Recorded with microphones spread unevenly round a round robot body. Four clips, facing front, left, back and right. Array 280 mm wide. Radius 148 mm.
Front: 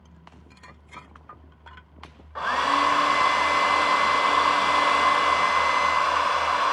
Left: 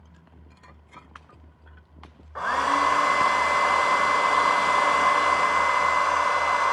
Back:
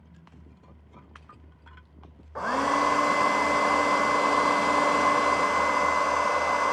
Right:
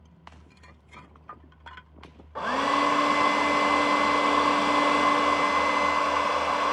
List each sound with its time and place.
2.4 s a hair dryer: 145° right, 0.6 m